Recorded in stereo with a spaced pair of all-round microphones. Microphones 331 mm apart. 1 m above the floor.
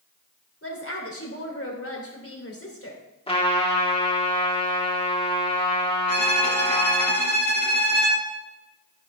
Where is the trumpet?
15° left (ahead or behind), 2.5 m.